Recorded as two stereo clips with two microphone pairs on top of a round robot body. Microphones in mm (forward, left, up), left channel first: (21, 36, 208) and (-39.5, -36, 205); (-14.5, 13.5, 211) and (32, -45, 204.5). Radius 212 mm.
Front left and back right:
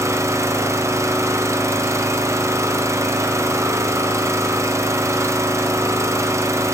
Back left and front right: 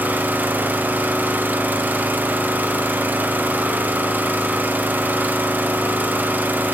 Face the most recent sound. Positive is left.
turn(degrees=-95)